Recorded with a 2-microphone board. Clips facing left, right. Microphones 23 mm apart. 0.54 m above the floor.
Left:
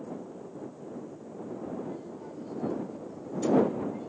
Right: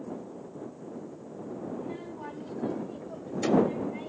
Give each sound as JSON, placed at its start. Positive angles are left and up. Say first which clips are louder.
{"t": 1.7, "sound": "a child speaking", "louder": "right 1 dB", "side_deg": -55}